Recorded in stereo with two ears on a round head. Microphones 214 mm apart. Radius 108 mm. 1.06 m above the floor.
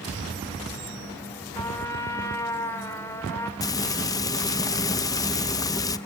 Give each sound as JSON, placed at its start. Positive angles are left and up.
{"t": 1.6, "sound": "a trumpet", "side_deg": 15, "distance_m": 2.5}
{"t": 3.6, "sound": "frying", "side_deg": 15, "distance_m": 0.6}